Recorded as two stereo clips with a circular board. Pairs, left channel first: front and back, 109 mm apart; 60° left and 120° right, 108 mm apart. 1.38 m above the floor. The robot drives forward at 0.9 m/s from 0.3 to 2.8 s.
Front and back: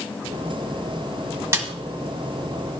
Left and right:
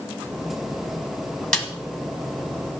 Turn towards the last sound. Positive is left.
turn(degrees=160)